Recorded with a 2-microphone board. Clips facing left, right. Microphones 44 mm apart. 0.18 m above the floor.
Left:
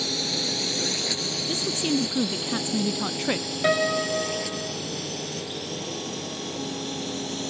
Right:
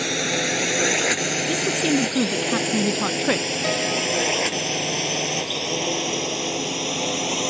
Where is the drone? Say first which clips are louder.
Right 6 dB; 60° right (ahead or behind); by 7.5 s 75° right (ahead or behind).